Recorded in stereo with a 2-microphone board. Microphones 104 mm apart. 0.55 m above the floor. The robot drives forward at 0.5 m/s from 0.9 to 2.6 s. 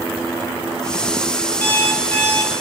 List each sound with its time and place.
1.6 s an alarm clock: 20° left (ahead or behind), 0.7 m; by 2.5 s 15° left (ahead or behind), 1.1 m